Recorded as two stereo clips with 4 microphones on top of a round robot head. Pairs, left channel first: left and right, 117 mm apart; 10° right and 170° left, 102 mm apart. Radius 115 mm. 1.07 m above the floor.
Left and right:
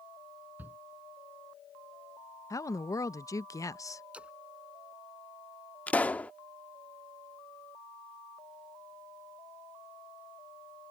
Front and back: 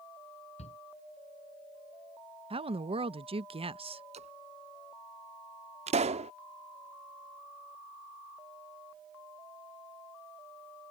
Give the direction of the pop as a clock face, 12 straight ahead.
6 o'clock.